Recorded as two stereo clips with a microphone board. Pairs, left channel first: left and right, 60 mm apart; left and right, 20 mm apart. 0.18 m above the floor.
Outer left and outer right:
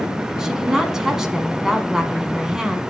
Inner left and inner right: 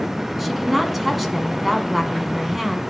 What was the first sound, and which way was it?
A woman speaking, 10° right (ahead or behind).